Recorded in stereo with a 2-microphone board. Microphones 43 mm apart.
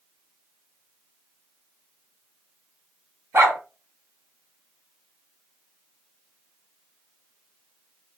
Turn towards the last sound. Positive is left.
turn(degrees=-80)